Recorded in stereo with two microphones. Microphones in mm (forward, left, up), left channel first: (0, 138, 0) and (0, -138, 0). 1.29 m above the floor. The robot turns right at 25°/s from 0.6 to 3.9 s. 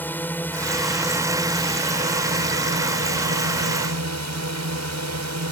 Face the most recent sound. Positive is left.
turn(degrees=-105)